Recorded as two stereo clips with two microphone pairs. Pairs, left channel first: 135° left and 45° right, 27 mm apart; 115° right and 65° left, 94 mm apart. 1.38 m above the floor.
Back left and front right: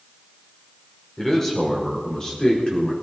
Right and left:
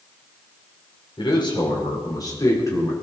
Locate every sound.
1.2 s a man speaking: 150° right, 4.5 m; by 2.9 s 175° right, 4 m